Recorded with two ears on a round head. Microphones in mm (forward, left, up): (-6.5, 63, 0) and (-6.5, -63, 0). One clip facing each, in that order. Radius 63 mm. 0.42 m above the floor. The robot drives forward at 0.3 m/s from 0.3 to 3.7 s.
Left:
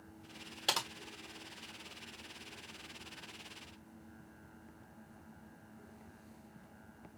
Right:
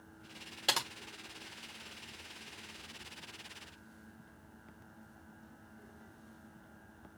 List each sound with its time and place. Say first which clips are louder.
0.7 s typing on a keyboard: right 1 dB; centre (ahead or behind), 1.1 m